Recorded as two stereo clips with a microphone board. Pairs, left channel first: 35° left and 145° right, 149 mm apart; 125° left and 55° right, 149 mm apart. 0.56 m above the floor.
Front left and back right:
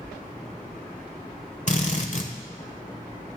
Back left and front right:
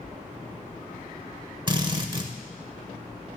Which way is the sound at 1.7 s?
Straight ahead.